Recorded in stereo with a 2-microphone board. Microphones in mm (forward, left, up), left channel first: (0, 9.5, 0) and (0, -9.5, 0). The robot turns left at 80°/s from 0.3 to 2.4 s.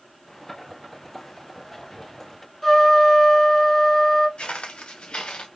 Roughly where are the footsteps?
Left.